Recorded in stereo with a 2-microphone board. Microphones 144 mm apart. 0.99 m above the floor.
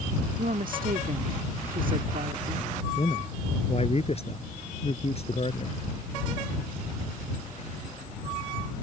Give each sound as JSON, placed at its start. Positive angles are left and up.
{"t": 0.4, "sound": "a woman speaking", "side_deg": -75}
{"t": 3.0, "sound": "a man speaking", "side_deg": 45}